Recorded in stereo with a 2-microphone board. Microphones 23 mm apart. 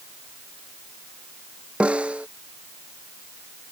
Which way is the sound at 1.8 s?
60° right (ahead or behind).